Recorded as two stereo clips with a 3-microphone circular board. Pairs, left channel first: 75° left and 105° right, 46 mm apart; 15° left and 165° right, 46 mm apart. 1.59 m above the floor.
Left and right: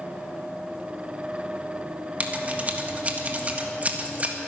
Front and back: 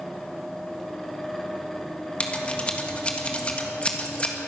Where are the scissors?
50° right, 1.6 m.